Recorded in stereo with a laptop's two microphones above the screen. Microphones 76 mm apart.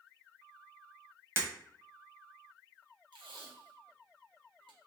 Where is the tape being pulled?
75° right (ahead or behind), 1.1 m.